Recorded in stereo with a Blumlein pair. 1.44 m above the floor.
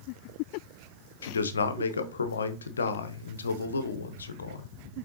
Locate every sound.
1.2 s a man speaking: 70° left, 0.6 m